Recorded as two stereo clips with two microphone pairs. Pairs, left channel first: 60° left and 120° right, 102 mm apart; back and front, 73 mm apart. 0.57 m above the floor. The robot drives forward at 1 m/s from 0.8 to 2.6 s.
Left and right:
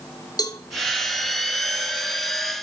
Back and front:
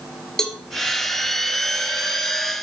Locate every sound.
0.4 s a cowbell: 100° left, 1.4 m